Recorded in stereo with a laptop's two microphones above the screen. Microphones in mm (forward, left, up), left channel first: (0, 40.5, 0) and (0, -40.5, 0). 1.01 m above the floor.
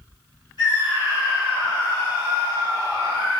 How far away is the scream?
About 4.5 m.